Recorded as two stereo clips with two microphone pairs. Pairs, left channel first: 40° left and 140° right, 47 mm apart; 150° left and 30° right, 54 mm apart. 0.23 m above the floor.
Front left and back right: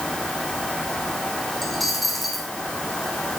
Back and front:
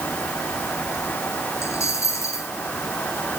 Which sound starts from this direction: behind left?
A dropped coin, at 1.6 s.